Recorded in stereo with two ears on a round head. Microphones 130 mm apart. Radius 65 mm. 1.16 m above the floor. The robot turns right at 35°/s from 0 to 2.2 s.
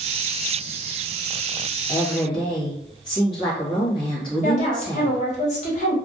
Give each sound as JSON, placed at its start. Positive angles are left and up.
{"t": 1.9, "sound": "a woman speaking", "side_deg": 20, "distance_m": 1.1}
{"t": 4.4, "sound": "a woman speaking", "side_deg": 50, "distance_m": 1.0}